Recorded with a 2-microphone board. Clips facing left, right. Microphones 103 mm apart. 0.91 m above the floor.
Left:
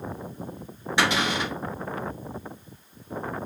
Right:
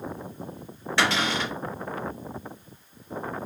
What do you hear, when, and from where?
1.0 s a cupboard door: 15° left (ahead or behind), 1.9 m